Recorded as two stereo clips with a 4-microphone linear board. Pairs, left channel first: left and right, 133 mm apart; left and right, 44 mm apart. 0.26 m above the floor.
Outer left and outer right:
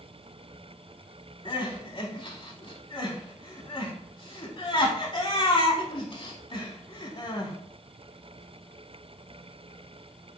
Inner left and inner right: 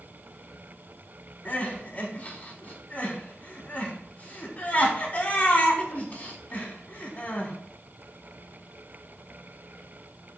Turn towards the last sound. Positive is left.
turn(degrees=40)  # may be behind; listen again after turning